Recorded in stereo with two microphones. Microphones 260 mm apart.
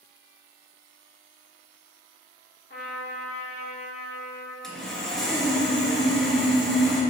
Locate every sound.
2.7 s a trumpet: 40° left (ahead or behind), 2 m
4.6 s sawing: centre (ahead or behind), 2.5 m